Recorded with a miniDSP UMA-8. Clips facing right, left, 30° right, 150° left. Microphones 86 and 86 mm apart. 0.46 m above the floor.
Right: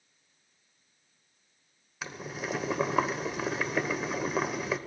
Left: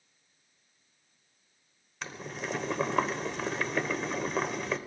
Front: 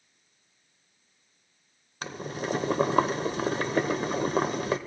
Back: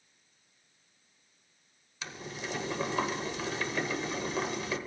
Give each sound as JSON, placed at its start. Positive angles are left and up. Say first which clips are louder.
{"t": 2.0, "sound": "boiling", "louder": "right 1 dB, front 7 dB", "azimuth_deg": -5, "distance_m": 1.1}